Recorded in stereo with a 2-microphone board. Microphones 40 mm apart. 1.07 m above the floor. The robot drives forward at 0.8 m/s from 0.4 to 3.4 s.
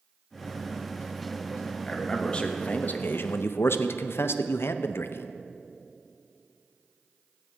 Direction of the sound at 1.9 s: 20° left (ahead or behind).